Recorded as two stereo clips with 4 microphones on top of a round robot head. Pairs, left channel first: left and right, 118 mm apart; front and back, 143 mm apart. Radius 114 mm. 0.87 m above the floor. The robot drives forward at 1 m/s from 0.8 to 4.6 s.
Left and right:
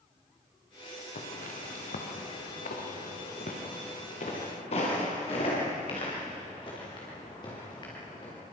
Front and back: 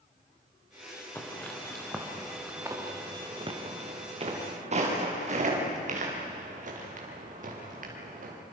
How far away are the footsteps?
About 4.5 m.